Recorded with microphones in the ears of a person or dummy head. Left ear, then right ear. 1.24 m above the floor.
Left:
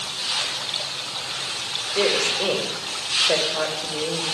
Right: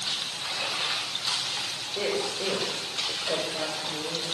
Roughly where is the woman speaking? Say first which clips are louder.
Left 9 dB; left.